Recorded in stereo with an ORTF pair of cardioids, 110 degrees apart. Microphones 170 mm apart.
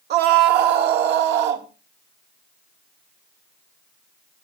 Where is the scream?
65° right, 1.3 m; by 1.7 s 75° right, 2.5 m.